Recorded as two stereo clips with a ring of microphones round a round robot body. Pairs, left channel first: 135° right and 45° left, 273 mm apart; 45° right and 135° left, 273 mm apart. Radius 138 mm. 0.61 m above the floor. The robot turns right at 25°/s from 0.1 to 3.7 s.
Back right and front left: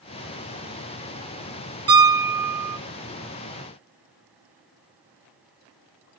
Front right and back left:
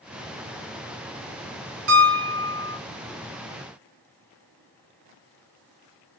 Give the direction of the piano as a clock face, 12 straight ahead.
8 o'clock.